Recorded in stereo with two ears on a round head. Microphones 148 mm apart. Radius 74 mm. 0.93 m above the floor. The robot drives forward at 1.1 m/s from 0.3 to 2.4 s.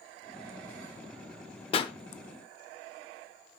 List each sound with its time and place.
1.7 s a pop: 35° left (ahead or behind), 0.6 m; by 1.9 s 30° left (ahead or behind), 0.7 m